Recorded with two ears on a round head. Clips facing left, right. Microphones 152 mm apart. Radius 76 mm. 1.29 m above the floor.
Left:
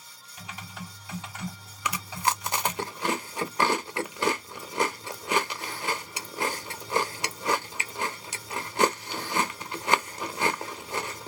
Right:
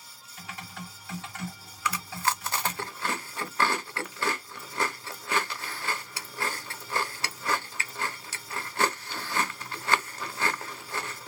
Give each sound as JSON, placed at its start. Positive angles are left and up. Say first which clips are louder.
{"t": 0.4, "sound": "typing on a keyboard", "louder": "even", "side_deg": 15, "distance_m": 1.6}
{"t": 1.9, "sound": "chewing", "louder": "left 1 dB", "side_deg": 15, "distance_m": 0.6}